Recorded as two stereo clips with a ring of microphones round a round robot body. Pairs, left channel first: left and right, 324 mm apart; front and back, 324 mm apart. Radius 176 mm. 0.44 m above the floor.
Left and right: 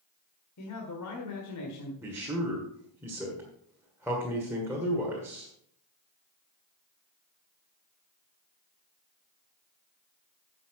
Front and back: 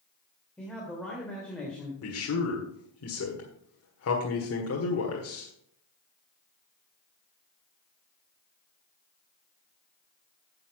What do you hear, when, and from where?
0.6 s a man speaking: 85° left, 1.9 m
2.0 s a man speaking: 10° right, 1.6 m